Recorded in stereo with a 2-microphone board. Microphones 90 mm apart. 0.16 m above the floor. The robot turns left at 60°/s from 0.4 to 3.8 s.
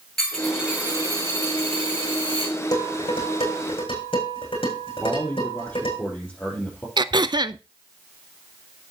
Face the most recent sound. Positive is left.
turn(degrees=-50)  # may be behind; listen again after turning